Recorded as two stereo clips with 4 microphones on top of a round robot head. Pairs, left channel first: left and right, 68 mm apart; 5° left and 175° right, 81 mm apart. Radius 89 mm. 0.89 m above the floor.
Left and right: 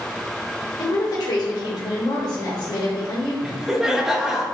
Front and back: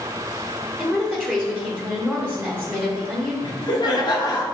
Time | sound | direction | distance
0.8 | a woman speaking | 90° left | 2.5 m
3.4 | laughter | 5° right | 1.7 m